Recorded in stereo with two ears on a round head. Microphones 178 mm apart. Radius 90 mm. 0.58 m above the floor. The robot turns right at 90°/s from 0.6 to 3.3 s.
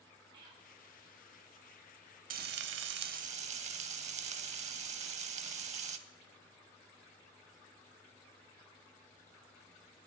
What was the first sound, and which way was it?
Whispering, 25° right (ahead or behind).